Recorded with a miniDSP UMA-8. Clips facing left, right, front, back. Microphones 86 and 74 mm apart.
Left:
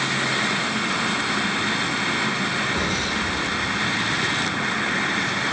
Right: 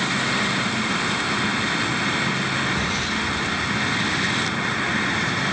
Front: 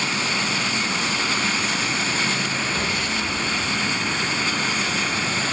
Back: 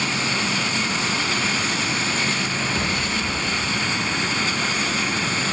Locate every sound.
2.7 s an explosion: 120° left, 4 m